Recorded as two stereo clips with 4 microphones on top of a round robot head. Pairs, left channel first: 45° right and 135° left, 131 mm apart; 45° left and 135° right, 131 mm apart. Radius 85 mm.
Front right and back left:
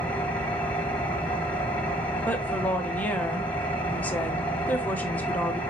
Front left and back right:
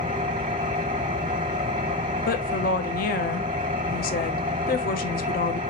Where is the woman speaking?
30° left, 1.0 m.